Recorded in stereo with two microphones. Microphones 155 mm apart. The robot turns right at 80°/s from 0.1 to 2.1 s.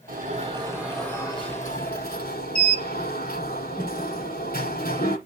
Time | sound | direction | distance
0.1 | an alarm | 70° right | 7 m